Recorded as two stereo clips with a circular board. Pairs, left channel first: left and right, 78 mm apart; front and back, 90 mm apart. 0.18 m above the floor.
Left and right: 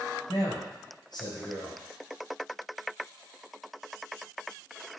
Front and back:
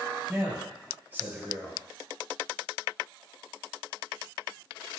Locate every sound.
0.3 s a man speaking: 110° left, 4.5 m